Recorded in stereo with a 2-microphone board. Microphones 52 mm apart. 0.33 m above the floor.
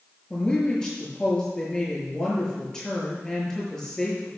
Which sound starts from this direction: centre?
A woman speaking, at 0.3 s.